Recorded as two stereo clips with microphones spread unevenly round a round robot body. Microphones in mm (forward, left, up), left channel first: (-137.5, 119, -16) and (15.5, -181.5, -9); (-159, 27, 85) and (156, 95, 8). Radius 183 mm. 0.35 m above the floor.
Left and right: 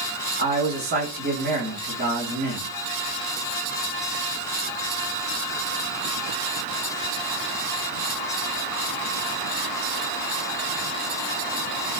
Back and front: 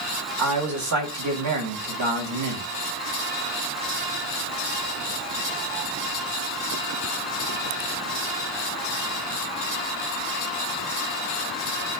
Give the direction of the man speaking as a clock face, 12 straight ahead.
12 o'clock.